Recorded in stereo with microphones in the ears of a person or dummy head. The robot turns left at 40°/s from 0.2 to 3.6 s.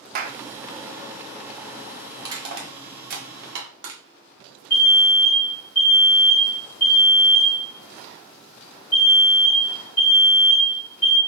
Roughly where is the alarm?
Left.